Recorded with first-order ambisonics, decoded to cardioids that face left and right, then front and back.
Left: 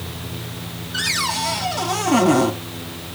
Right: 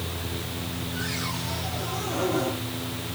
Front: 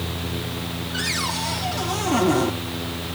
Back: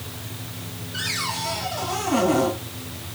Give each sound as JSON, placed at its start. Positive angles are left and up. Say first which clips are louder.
{"t": 0.9, "sound": "a cupboard door", "louder": "left 12 dB, front 1 dB", "azimuth_deg": 85, "distance_m": 3.0}